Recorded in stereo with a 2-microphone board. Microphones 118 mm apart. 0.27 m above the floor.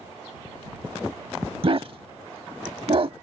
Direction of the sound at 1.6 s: 50° right (ahead or behind).